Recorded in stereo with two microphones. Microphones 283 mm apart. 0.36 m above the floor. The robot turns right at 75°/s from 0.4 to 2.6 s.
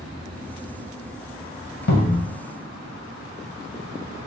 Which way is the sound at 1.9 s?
75° left (ahead or behind).